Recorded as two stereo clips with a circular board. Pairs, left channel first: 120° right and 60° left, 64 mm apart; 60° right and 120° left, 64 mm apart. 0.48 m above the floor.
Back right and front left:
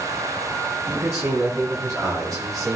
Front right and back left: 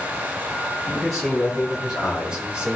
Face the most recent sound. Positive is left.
turn(degrees=50)